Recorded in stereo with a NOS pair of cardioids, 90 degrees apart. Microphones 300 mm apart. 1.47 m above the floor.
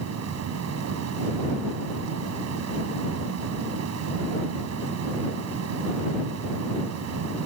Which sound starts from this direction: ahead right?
A fan, at 0.0 s.